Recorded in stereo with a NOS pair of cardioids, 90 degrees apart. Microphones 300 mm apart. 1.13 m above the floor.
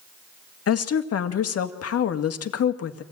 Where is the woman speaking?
55° left, 1.9 m.